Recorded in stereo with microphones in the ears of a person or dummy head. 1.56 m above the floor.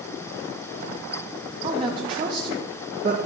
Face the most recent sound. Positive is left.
turn(degrees=-30)  # may be behind; listen again after turning